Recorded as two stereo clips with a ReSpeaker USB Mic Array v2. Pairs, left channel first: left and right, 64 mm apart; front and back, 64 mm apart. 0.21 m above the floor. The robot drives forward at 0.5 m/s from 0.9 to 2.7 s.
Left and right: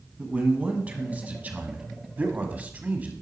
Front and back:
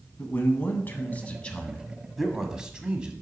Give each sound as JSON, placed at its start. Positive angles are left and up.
{"t": 0.2, "sound": "a man speaking", "azimuth_deg": -40, "distance_m": 1.2}